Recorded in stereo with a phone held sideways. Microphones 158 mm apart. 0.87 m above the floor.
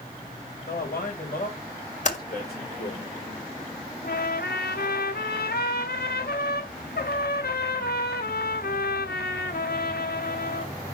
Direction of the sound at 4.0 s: 85° left.